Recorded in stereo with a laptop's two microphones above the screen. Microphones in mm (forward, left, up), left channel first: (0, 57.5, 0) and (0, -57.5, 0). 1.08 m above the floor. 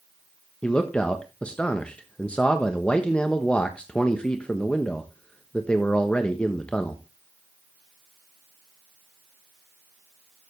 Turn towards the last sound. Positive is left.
turn(degrees=10)  # may be behind; listen again after turning